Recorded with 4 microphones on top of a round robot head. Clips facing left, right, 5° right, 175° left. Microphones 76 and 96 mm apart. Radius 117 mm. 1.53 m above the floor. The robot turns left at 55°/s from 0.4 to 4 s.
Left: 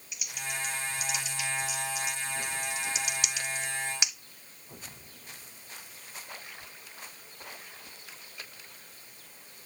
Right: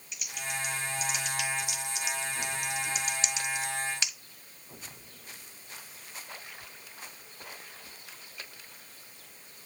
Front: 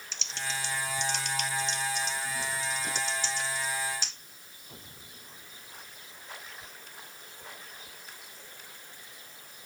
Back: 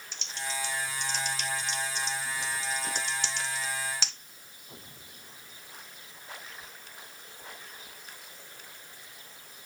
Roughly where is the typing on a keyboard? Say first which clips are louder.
Right 1 dB, even; ahead.